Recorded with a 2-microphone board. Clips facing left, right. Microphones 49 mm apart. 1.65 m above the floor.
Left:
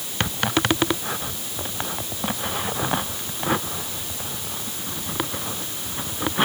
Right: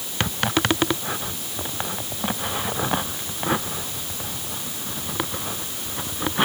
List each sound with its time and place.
Only background noise.